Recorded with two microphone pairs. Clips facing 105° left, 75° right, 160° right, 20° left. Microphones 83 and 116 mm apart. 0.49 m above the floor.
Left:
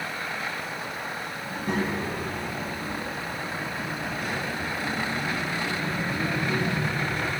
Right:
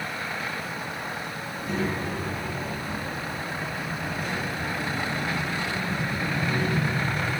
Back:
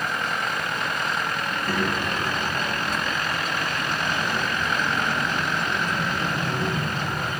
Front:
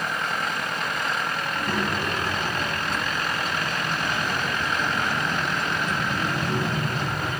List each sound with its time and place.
1.4 s a child speaking: 85° left, 3 m; by 7.3 s 90° left, 8 m